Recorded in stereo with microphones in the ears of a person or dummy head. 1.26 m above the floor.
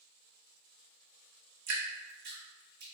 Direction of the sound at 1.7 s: 50° right (ahead or behind).